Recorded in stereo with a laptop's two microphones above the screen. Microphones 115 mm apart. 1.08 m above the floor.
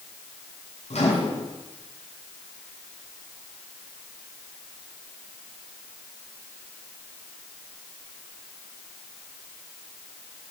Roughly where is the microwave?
Left.